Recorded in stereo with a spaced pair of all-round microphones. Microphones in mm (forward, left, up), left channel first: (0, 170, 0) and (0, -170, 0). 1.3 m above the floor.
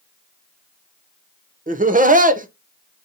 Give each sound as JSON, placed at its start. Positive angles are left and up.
{"t": 1.7, "sound": "laughter", "side_deg": -25, "distance_m": 0.6}